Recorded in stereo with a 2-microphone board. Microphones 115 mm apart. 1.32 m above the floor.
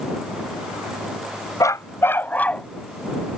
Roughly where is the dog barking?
Left.